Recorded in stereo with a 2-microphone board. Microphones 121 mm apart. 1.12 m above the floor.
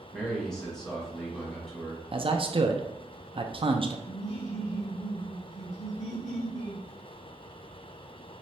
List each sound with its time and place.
0.1 s a man speaking: 5° left (ahead or behind), 1.7 m
2.1 s a man speaking: 45° right (ahead or behind), 0.5 m
4.1 s laughter: 75° left (ahead or behind), 1.9 m